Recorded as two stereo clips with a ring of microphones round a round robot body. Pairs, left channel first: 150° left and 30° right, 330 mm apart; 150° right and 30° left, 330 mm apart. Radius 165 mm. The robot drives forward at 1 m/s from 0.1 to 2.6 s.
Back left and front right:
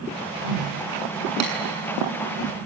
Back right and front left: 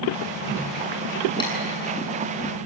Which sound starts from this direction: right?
Tapping, at 1.4 s.